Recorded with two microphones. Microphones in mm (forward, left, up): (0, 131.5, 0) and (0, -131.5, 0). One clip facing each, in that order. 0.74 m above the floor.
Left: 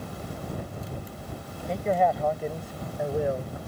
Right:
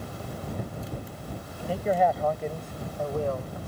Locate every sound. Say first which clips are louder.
1.7 s a man speaking: even; 5° right (ahead or behind); by 3.7 s 25° left (ahead or behind)